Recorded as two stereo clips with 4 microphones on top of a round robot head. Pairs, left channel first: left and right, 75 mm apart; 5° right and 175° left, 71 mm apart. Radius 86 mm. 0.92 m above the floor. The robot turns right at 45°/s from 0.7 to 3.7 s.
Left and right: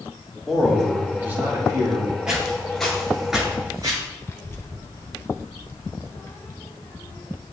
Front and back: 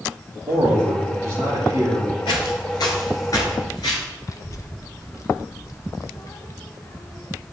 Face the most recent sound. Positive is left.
turn(degrees=35)